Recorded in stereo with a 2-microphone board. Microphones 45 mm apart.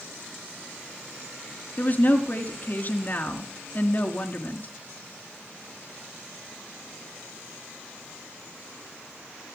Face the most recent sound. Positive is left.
turn(degrees=40)  # may be behind; listen again after turning